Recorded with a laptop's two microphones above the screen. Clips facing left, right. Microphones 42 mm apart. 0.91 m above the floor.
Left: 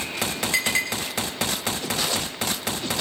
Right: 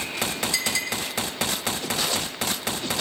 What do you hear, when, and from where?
0.5 s a clink: 40° left (ahead or behind), 3 m